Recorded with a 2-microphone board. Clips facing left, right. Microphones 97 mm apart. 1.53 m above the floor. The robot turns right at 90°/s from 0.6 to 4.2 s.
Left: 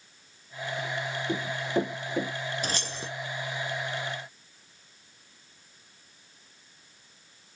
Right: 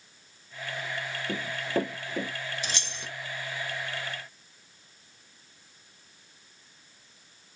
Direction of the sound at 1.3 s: 5° right (ahead or behind).